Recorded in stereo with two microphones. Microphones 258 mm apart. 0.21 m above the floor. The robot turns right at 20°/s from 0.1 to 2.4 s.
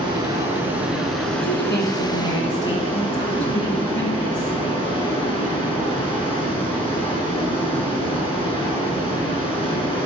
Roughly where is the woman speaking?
Left.